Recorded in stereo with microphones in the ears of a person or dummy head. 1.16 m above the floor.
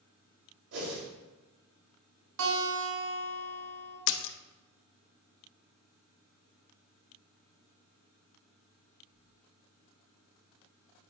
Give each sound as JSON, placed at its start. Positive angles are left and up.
{"t": 0.7, "sound": "a whoosh", "side_deg": -65, "distance_m": 3.0}
{"t": 2.4, "sound": "a guitar", "side_deg": -80, "distance_m": 2.5}
{"t": 4.1, "sound": "a splash", "side_deg": 60, "distance_m": 0.6}